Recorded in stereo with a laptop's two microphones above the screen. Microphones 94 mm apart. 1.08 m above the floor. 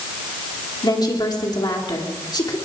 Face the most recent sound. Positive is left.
turn(degrees=50)  # may be behind; listen again after turning